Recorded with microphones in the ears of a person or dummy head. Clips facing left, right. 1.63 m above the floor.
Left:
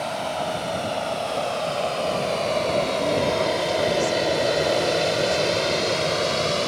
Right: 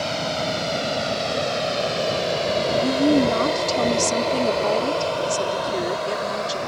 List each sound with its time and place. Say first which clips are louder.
0.0 s a vehicle: right 1 dB; 35° right (ahead or behind); by 6.7 s 45° left (ahead or behind)
2.8 s a woman speaking: right 5 dB; 80° right